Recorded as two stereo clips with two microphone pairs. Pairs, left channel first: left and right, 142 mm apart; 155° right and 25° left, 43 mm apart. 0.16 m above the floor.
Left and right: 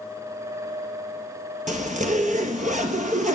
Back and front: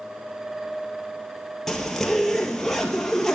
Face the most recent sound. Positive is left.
turn(degrees=-70)